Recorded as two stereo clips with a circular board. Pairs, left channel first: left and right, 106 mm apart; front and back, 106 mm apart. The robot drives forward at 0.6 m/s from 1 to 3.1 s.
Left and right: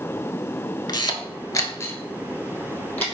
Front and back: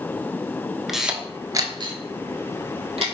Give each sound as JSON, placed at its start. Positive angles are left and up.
{"t": 0.9, "sound": "a camera shutter", "azimuth_deg": 95, "distance_m": 0.5}